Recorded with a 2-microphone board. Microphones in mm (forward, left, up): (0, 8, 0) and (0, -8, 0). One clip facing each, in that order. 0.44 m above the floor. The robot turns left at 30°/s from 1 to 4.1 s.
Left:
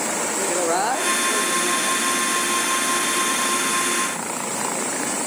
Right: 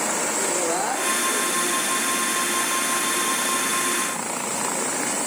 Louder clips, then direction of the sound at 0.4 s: Left 3 dB; 25° left (ahead or behind).